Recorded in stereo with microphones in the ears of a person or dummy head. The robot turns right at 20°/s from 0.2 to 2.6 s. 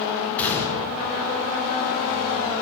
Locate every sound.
0.4 s a gunshot: 5° left (ahead or behind), 1.9 m; by 0.9 s 15° left (ahead or behind), 1.9 m